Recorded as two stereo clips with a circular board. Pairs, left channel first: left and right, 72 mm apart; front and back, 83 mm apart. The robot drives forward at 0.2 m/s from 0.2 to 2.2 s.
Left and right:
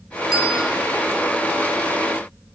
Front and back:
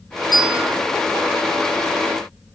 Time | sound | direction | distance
0.3 | a bell | 175° right | 0.7 m